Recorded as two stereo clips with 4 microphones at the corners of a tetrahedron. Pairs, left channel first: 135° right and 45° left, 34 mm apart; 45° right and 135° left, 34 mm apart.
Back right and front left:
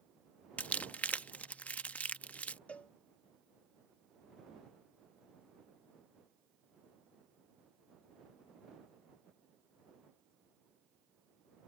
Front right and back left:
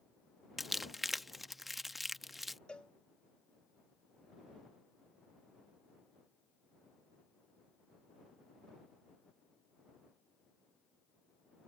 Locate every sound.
0.6 s crumpling: 140° right
2.7 s a cowbell: 100° right